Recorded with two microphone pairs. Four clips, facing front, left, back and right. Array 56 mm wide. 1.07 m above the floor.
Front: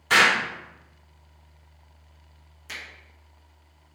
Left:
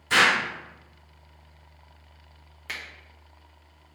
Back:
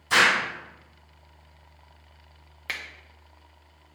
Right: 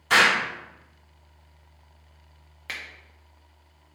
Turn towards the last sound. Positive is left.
turn(degrees=-170)